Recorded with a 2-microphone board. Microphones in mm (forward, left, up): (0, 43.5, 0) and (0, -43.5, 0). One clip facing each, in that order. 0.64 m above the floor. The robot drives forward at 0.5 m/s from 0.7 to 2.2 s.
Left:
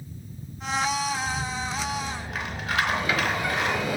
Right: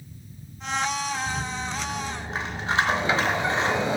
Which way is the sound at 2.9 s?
30° right (ahead or behind).